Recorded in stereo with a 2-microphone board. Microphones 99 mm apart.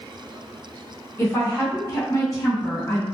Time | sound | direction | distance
1.2 | a woman speaking | 30° left (ahead or behind) | 1.3 m